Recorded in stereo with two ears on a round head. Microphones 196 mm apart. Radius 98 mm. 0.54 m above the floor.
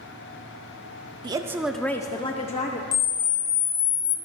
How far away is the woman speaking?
About 0.6 m.